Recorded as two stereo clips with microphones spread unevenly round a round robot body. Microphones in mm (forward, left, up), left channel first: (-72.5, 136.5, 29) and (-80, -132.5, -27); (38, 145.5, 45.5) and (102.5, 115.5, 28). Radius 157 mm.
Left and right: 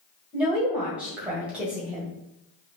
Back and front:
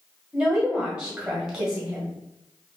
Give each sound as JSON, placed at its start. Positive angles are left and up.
{"t": 0.3, "sound": "a woman speaking", "azimuth_deg": -45, "distance_m": 1.4}